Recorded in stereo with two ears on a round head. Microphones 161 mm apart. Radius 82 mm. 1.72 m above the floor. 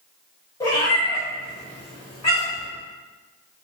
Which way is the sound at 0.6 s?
20° left (ahead or behind).